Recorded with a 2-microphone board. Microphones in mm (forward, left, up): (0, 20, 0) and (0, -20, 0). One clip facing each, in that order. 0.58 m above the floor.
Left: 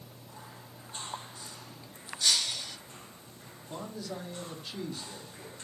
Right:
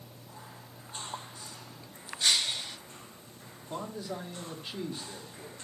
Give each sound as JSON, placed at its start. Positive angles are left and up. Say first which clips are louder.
{"t": 2.2, "sound": "breaking glass", "louder": "right 1 dB", "side_deg": -35, "distance_m": 0.6}
{"t": 3.7, "sound": "a man speaking", "louder": "right 2 dB", "side_deg": -25, "distance_m": 0.8}